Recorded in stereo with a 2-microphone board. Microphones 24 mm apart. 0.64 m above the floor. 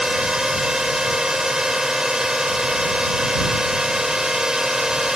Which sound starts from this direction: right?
A drone, at 0.0 s.